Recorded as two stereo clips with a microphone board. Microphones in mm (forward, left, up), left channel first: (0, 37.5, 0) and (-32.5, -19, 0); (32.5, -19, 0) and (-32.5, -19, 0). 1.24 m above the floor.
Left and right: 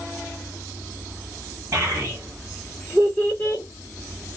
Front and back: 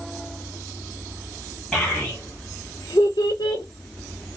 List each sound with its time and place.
1.7 s a child speaking: 75° right, 1.2 m; by 3.6 s 5° left, 0.8 m